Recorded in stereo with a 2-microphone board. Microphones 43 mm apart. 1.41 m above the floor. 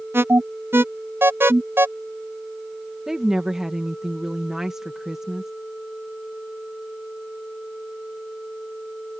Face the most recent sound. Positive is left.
turn(degrees=-10)  # may be behind; listen again after turning